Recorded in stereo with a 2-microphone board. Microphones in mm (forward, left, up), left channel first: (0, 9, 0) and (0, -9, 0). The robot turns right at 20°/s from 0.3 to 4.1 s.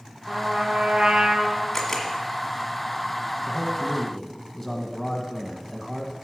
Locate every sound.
0.3 s a trumpet: 75° right (ahead or behind), 1.4 m; by 1.6 s 55° right (ahead or behind), 1.4 m
1.7 s a camera shutter: 20° left (ahead or behind), 1.4 m; by 2.1 s 15° left (ahead or behind), 1.4 m
3.5 s a man speaking: centre (ahead or behind), 1.1 m; by 6.1 s 5° left (ahead or behind), 1.1 m